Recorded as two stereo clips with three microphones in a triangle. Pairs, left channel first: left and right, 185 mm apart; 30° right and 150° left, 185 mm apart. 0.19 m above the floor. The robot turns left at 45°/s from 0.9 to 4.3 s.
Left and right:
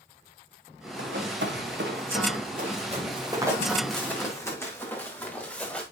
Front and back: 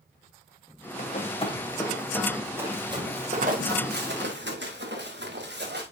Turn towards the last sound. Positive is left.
turn(degrees=175)